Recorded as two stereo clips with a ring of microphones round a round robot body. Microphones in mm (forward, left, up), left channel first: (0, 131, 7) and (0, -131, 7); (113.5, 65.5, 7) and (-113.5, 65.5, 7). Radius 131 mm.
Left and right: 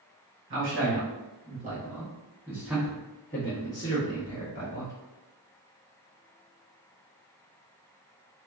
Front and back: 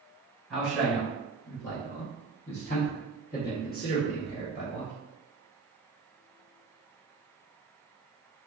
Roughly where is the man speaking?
Right.